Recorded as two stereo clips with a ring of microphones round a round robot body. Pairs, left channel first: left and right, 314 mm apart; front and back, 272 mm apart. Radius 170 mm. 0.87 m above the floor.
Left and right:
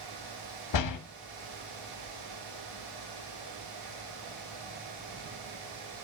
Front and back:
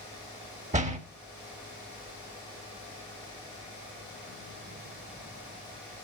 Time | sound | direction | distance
0.7 | a door slam | 115° left | 1.2 m